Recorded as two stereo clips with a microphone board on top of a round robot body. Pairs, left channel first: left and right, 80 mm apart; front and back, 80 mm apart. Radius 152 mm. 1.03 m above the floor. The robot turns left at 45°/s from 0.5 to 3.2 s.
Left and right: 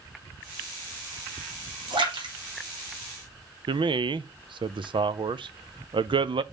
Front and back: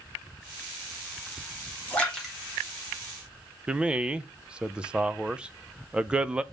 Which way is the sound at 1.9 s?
75° right.